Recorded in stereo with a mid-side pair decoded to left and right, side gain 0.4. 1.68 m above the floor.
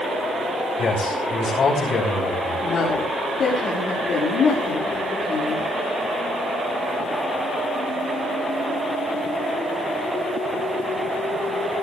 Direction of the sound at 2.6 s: 65° left.